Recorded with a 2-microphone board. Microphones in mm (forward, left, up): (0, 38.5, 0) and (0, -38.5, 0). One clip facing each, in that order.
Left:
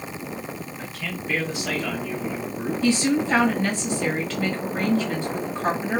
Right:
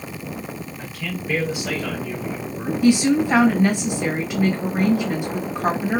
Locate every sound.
0.8 s a man speaking: 5° right (ahead or behind), 1.4 m; by 2.7 s 10° right (ahead or behind), 1.5 m
2.8 s a woman speaking: 15° right (ahead or behind), 1.6 m